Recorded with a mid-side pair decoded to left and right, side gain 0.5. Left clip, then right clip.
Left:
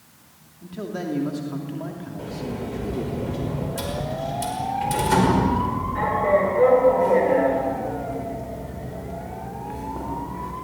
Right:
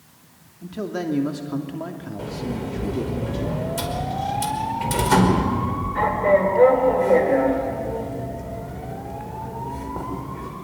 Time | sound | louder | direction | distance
0.6 | a man speaking | right 3 dB | 25° right | 2.5 m
2.2 | a sliding door | right 2 dB | 25° right | 5.5 m